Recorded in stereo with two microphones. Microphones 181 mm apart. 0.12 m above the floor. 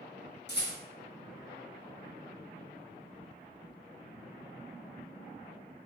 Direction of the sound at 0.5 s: 70° left (ahead or behind).